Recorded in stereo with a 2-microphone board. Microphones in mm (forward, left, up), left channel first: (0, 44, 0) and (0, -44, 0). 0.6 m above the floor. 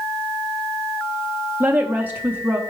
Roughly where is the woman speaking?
Right.